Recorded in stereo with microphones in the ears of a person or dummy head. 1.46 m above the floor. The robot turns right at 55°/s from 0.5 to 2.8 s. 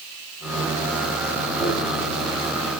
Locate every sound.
1.6 s a dropped coin: 15° right (ahead or behind), 1.8 m; by 1.7 s 20° right (ahead or behind), 1.8 m